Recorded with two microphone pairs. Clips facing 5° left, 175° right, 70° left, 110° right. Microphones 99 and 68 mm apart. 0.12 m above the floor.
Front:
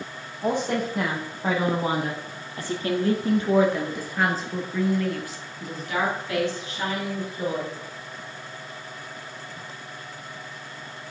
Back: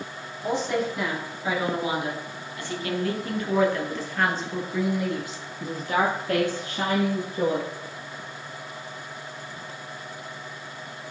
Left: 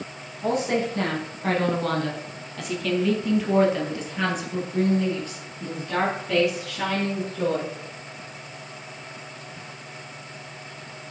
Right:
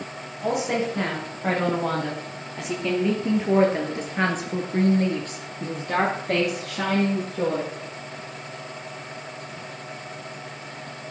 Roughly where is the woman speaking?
Ahead right.